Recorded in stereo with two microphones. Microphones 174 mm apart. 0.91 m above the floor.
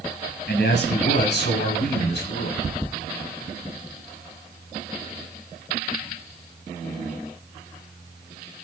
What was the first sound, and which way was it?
A man speaking, 80° left.